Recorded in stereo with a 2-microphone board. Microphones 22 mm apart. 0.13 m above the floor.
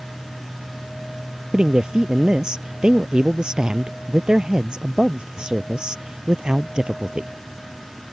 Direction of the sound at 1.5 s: 45° right (ahead or behind).